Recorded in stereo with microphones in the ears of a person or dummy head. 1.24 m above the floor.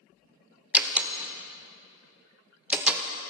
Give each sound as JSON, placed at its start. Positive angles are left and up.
{"t": 0.7, "sound": "a door slam", "side_deg": -10, "distance_m": 0.6}